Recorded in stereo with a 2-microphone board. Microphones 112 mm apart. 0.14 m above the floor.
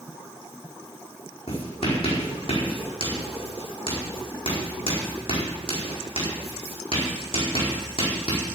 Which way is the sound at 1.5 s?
55° left (ahead or behind).